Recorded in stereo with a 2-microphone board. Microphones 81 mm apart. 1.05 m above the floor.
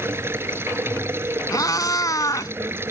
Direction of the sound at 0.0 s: 30° right (ahead or behind).